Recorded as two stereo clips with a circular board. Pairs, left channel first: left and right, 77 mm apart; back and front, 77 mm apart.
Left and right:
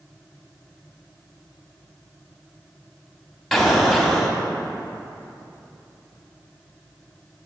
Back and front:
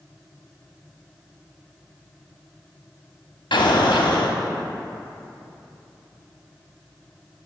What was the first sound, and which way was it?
An explosion, straight behind.